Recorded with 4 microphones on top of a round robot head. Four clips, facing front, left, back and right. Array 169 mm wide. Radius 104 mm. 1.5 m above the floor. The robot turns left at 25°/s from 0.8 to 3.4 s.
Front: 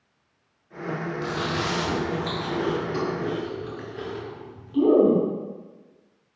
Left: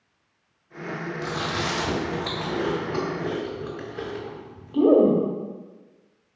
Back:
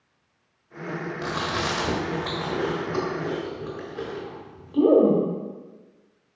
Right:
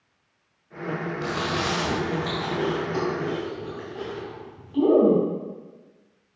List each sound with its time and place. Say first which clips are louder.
1.2 s chewing: right 1 dB, back 1 dB; straight behind, 1.2 m; by 5.2 s 125° left, 1.2 m